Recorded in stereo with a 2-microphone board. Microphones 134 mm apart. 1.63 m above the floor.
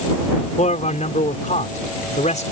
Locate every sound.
0.6 s a man speaking: 55° left (ahead or behind)